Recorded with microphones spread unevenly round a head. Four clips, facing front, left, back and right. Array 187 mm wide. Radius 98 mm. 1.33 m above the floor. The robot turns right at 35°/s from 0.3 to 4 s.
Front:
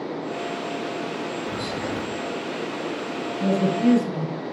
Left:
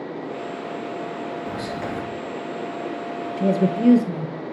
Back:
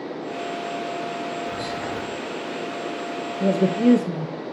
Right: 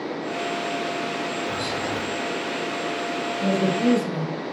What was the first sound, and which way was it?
Whispering, 90° left.